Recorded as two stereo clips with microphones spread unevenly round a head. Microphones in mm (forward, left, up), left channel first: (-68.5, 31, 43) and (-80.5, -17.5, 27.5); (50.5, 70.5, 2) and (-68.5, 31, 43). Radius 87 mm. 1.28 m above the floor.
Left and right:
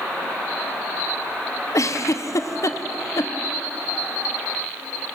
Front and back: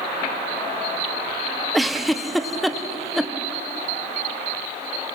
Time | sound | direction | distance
1.7 | a giggle | 100° left | 0.9 m